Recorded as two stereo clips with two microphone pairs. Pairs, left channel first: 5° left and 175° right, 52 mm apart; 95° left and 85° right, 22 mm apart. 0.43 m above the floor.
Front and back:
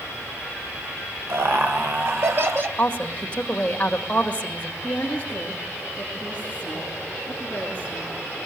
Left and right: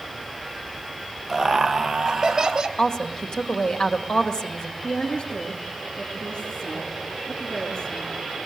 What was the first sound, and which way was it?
Laughter, 170° right.